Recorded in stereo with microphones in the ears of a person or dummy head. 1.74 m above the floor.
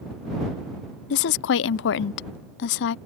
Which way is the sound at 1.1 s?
55° left (ahead or behind).